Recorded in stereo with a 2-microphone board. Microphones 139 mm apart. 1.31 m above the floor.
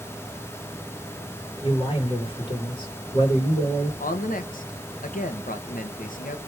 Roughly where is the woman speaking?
Left.